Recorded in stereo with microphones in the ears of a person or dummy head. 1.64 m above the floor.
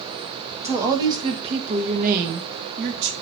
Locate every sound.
0.6 s a woman speaking: 10° right (ahead or behind), 1.4 m; by 3.1 s 60° right (ahead or behind), 1.7 m